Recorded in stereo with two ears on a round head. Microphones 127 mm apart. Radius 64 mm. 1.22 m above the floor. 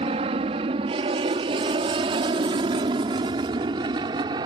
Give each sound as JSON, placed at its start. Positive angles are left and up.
{"t": 0.0, "sound": "an aircraft", "side_deg": -40}